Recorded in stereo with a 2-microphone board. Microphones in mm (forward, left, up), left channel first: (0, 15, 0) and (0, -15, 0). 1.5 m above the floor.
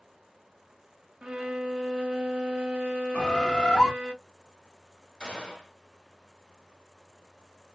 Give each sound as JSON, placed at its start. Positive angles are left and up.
{"t": 1.2, "sound": "a violin", "side_deg": -35, "distance_m": 0.6}
{"t": 3.1, "sound": "a bird", "side_deg": 20, "distance_m": 1.3}
{"t": 5.2, "sound": "a gunshot", "side_deg": 20, "distance_m": 2.0}